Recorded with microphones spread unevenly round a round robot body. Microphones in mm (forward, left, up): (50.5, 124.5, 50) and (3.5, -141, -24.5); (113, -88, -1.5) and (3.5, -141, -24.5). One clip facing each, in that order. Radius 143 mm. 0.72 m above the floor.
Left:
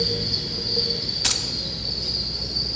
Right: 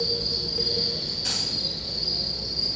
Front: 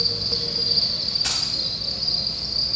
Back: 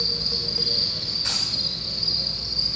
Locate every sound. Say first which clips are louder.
0.0 s an insect: left 2 dB, front 2 dB; straight ahead, 4 m
1.2 s keys jangling: left 2 dB, front 2 dB; 70° left, 1.0 m